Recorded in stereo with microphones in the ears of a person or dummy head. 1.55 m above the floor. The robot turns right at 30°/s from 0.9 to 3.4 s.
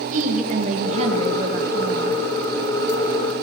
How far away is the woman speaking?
About 1.7 m.